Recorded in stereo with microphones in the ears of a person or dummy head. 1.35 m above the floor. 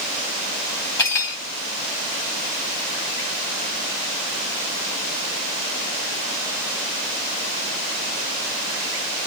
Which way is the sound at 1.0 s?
20° left (ahead or behind).